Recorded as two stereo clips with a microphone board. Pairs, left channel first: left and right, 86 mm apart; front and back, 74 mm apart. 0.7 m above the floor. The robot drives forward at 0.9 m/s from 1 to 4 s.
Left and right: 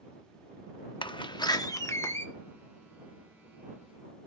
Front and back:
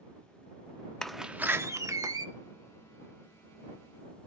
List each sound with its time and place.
1.0 s a door slam: 80° left, 0.6 m; by 2.3 s 150° left, 1.2 m